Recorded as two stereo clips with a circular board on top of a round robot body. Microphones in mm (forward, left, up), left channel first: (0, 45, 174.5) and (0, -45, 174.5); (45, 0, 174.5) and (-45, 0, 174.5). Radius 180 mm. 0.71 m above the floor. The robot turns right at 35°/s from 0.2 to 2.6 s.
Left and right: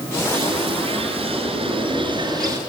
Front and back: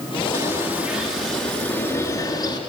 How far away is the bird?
About 8.5 m.